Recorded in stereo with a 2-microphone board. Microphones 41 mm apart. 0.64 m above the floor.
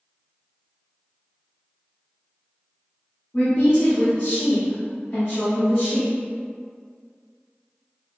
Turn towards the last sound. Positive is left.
turn(degrees=60)  # may be behind; listen again after turning